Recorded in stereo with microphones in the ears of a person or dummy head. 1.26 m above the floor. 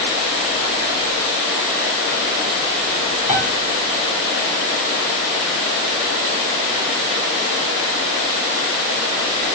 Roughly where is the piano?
Right.